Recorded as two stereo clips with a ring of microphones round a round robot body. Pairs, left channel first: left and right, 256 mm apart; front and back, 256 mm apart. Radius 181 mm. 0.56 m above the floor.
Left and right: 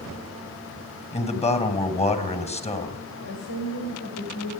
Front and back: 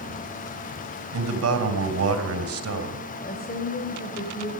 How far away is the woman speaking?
About 3.5 m.